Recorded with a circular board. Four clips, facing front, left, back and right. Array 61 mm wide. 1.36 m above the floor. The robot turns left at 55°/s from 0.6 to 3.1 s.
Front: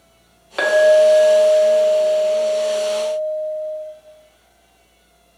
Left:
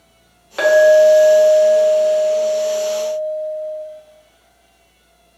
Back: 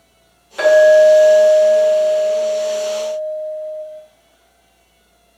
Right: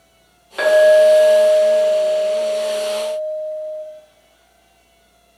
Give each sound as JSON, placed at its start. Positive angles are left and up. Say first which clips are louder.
{"t": 0.6, "sound": "a clink", "louder": "left 1 dB, back 4 dB", "azimuth_deg": 20, "distance_m": 0.8}